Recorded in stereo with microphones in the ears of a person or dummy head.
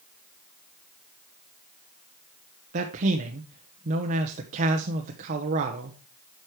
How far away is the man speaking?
About 1.0 m.